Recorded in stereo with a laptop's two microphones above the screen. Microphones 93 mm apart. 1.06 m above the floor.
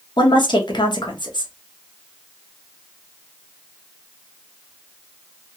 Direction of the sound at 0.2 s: 60° left (ahead or behind).